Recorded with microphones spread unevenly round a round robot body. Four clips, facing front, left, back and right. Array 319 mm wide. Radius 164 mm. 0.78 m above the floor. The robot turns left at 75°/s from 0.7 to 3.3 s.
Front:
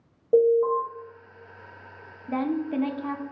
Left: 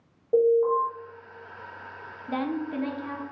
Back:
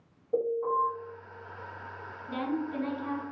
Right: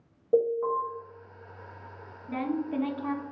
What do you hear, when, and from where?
0.3 s an alarm: 20° right, 1.5 m; by 0.8 s 30° right, 1.5 m
2.3 s a woman speaking: 45° left, 0.5 m; by 3.2 s 30° right, 0.5 m